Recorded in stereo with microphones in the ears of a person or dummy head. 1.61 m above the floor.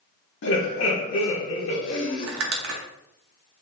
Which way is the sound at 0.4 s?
65° left (ahead or behind).